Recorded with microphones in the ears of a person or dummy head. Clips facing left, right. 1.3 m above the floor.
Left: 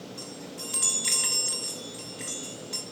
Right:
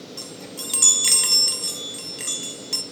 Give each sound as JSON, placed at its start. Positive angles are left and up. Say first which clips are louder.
{"t": 0.2, "sound": "a chime", "louder": "right 3 dB", "side_deg": -60, "distance_m": 0.8}